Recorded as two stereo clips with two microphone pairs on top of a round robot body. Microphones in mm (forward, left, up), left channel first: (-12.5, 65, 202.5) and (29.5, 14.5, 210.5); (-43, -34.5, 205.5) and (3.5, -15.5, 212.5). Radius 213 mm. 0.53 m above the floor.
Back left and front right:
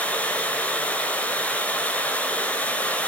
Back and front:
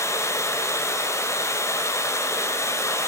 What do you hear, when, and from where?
0.0 s running water: 165° right, 4 m